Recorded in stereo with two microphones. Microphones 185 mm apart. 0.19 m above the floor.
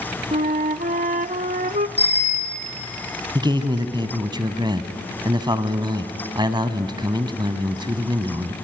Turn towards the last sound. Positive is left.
turn(degrees=-25)  # may be behind; listen again after turning